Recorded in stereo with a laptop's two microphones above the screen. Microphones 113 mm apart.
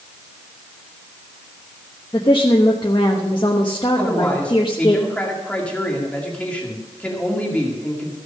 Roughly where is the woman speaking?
Left.